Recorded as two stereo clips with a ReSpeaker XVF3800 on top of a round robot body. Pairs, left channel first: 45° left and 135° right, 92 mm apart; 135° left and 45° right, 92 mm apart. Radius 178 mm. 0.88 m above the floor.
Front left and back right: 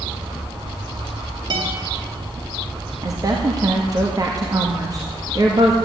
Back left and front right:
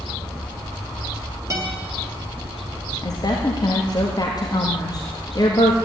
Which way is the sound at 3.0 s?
Straight behind.